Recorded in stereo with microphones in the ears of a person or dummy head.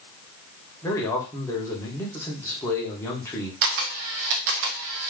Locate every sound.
0.8 s a man speaking: 15° left (ahead or behind), 1.3 m
3.6 s a camera shutter: 50° right (ahead or behind), 0.5 m